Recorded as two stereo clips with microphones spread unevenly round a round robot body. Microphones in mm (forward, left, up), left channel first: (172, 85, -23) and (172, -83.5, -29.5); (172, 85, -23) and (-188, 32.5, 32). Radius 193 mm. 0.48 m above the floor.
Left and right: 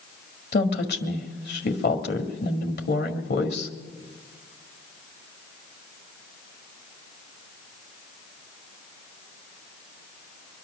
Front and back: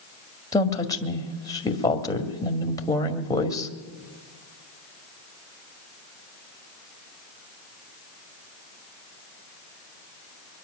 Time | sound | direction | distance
0.5 | a woman speaking | 85° left | 1.9 m